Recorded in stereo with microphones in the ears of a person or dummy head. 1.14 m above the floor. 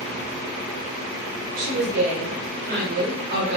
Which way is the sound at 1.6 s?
55° right (ahead or behind).